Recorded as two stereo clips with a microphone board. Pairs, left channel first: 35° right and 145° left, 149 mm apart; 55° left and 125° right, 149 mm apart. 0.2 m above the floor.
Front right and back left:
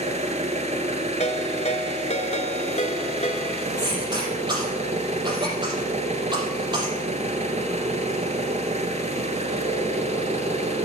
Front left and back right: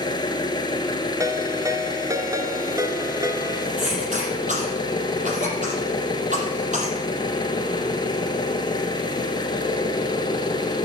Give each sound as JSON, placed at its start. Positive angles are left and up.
{"t": 0.0, "sound": "an engine running", "azimuth_deg": 115, "distance_m": 1.2}
{"t": 1.2, "sound": "a ringtone", "azimuth_deg": -60, "distance_m": 0.7}
{"t": 3.8, "sound": "a cough", "azimuth_deg": -155, "distance_m": 4.5}